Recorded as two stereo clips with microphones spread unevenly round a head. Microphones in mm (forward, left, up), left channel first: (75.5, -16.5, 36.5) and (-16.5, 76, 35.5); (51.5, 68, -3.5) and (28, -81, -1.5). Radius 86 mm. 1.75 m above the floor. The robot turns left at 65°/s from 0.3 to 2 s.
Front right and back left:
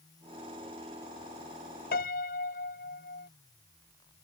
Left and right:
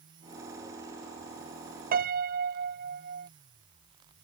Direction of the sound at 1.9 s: 75° right.